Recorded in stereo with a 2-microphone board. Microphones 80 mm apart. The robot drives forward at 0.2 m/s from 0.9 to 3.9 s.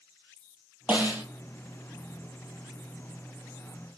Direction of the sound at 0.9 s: 20° right (ahead or behind).